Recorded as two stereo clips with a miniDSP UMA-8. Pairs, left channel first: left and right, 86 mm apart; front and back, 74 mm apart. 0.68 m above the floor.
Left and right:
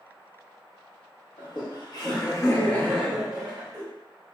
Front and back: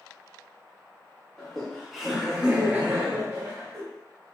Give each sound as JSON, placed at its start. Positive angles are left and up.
{"t": 1.4, "sound": "laughter", "azimuth_deg": 80, "distance_m": 1.1}